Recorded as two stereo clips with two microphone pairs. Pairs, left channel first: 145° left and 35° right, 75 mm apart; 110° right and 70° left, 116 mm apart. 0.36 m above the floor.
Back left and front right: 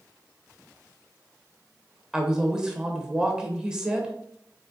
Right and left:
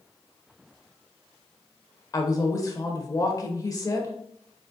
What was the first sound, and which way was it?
A woman speaking, 105° right.